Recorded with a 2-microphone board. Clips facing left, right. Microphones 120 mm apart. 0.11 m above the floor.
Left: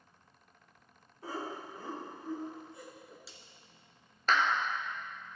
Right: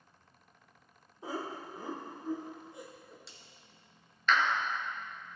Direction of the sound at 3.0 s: Centre (ahead or behind).